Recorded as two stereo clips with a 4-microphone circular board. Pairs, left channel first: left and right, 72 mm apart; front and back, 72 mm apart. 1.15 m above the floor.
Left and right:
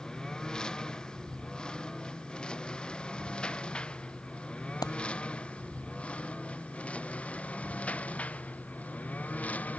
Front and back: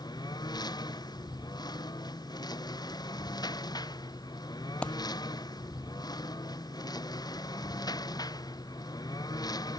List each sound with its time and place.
0.0 s a lawn mower: 10° left; by 9.8 s 20° left
4.8 s a dropped coin: 75° left